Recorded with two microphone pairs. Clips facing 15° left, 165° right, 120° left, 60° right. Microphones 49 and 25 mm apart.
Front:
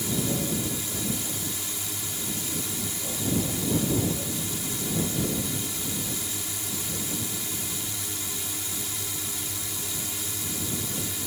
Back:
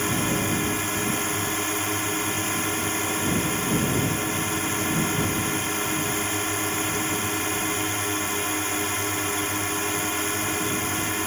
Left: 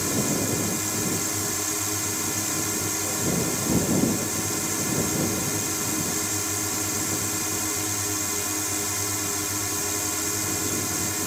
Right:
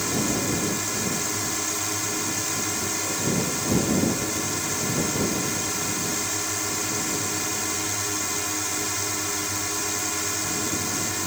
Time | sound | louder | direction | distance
0.0 | a drone | back 4 dB, even | 140° right | ?